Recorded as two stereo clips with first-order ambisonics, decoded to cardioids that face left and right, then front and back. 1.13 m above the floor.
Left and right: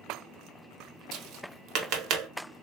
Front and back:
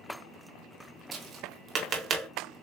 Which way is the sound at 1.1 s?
125° right.